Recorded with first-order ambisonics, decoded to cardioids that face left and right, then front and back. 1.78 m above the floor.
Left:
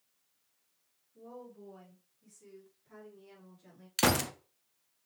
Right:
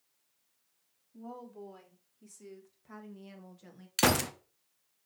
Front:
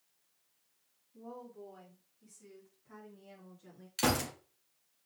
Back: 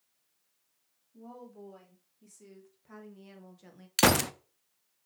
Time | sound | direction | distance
1.1 | a woman speaking | 105° right | 3 m
4.0 | a gunshot | 175° right | 0.5 m